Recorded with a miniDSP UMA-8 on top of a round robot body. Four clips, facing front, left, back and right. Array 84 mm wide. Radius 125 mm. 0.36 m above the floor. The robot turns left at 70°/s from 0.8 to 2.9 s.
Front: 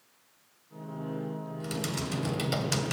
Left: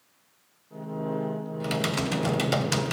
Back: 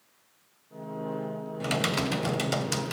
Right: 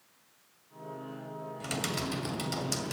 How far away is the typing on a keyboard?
About 2 m.